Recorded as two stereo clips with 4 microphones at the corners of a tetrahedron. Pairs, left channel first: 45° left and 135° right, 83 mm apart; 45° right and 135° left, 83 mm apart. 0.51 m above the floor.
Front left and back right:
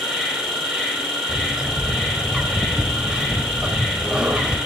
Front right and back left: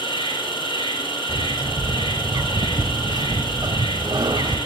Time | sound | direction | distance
0.0 | an insect | 55° right | 5 m
1.3 | a bird | 145° left | 1.3 m